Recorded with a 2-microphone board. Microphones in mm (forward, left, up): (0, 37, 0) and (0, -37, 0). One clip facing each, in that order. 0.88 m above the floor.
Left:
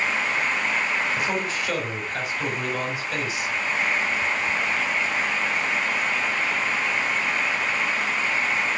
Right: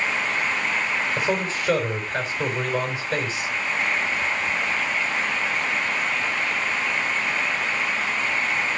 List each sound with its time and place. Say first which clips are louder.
1.2 s a man speaking: right 2 dB; 35° right (ahead or behind), 4.5 m